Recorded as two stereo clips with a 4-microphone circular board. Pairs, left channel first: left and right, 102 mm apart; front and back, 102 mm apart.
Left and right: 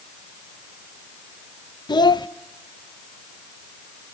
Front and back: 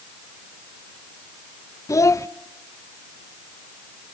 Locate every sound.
1.9 s a child speaking: 55° left, 0.6 m